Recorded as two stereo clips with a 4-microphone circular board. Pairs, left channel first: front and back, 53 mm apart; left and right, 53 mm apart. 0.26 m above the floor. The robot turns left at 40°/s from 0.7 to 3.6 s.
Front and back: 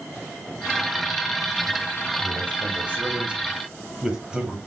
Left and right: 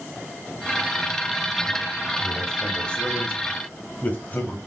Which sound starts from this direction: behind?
A man speaking, at 2.2 s.